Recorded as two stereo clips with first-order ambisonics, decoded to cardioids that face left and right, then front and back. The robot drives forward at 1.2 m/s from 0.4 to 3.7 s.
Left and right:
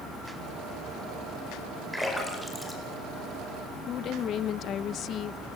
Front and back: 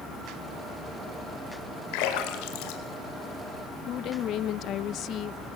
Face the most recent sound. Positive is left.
turn(degrees=40)